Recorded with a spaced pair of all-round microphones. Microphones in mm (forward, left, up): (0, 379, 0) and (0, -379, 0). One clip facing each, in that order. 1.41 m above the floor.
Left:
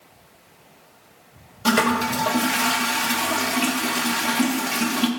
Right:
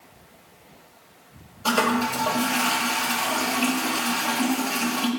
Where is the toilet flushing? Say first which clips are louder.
Left 3 dB; 55° left (ahead or behind), 0.7 m.